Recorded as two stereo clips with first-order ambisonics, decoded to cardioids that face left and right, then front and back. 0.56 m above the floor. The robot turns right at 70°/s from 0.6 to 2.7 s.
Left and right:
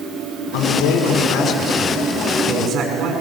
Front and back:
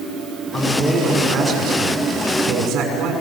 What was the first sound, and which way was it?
A man speaking, 85° left.